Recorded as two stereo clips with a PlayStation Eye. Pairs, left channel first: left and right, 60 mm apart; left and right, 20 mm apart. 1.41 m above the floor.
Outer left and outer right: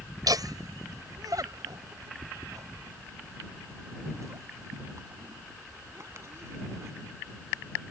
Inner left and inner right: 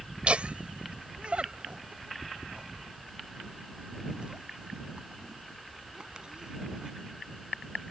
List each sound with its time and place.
0.3 s laughter: 80° right; by 6.9 s 45° right (ahead or behind)